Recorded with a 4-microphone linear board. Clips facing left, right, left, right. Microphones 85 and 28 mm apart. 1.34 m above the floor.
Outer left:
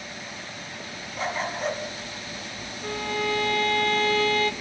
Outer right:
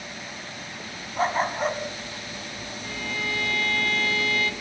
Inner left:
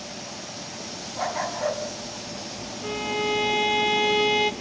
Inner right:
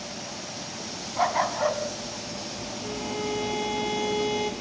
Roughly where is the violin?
Left.